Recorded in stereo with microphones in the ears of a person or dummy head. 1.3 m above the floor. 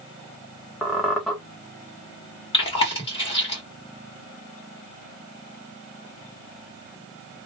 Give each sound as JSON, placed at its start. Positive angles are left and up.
{"t": 0.8, "sound": "a squeak", "side_deg": 5, "distance_m": 0.5}
{"t": 2.5, "sound": "chewing", "side_deg": 30, "distance_m": 1.8}